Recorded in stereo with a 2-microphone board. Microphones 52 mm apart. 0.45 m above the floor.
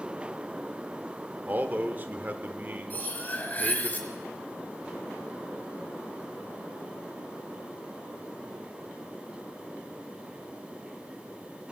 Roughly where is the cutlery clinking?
Left.